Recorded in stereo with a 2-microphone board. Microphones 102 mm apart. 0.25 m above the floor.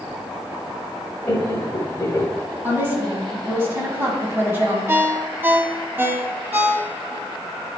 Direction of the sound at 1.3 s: 30° left (ahead or behind).